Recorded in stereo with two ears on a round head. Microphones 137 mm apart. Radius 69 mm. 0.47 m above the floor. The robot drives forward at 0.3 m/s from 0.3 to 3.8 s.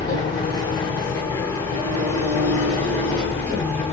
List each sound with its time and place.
0.0 s an engine running: 30° left (ahead or behind), 1.1 m; by 3.9 s 15° left (ahead or behind), 1.9 m